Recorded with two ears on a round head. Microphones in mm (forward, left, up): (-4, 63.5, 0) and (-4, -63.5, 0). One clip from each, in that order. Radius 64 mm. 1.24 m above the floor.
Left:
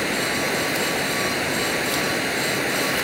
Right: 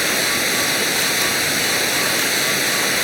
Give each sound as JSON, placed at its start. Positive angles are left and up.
{"t": 0.0, "sound": "running water", "side_deg": -85}